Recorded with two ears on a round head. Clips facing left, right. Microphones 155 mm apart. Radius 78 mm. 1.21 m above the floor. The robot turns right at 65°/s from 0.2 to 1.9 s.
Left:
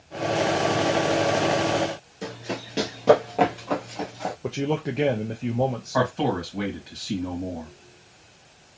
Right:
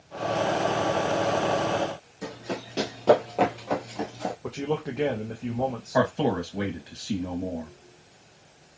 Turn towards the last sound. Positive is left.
turn(degrees=-15)  # may be behind; listen again after turning